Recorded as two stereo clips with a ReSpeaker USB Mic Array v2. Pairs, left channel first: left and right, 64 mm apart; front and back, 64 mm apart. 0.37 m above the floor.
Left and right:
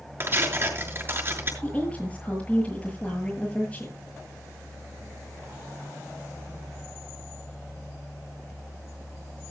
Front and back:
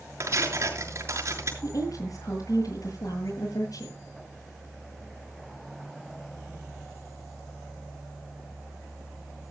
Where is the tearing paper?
140° right, 6 m.